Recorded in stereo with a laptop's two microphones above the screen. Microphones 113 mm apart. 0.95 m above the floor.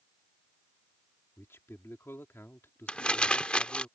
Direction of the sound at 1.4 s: 20° left (ahead or behind).